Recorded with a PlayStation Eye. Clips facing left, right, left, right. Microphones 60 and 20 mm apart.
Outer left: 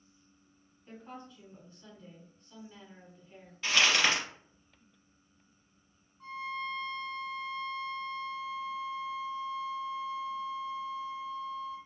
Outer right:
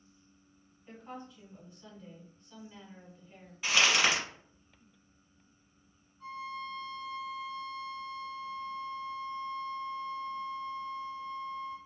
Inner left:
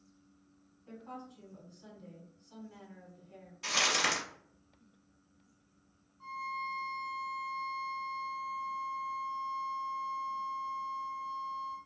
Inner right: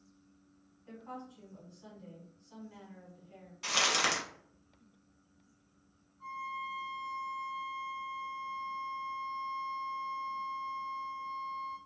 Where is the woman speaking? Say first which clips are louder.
Outer right 1 dB, inner right 1 dB; 10° right (ahead or behind), 1.6 m.